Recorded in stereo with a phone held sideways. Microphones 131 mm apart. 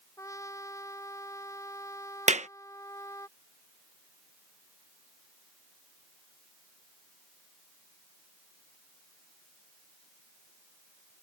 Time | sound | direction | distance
0.2 | a trumpet | 25° left (ahead or behind) | ?
2.3 | a clap | 65° right (ahead or behind) | ?